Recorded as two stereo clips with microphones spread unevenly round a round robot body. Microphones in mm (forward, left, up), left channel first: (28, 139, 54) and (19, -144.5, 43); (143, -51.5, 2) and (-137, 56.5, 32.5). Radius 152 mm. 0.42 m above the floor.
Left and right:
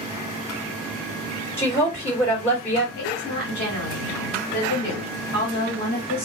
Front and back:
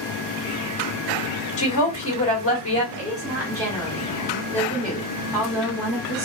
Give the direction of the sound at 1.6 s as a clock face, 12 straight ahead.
12 o'clock.